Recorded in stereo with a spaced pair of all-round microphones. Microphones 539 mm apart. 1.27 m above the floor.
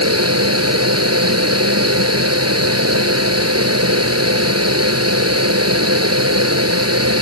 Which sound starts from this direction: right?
A fan, at 0.0 s.